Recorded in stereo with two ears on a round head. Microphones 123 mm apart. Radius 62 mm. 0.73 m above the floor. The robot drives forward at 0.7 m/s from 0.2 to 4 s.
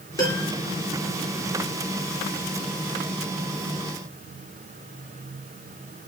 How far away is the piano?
About 3.5 m.